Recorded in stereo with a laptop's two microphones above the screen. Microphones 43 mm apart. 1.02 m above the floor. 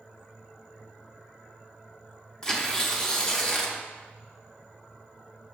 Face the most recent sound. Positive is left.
turn(degrees=15)  # may be behind; listen again after turning